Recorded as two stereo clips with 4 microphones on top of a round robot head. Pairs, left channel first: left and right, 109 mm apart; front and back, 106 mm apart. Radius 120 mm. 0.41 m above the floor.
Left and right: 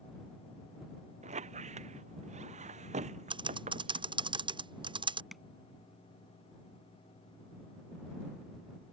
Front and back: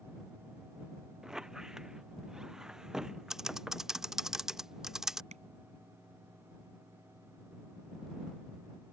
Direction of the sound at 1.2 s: 95° right.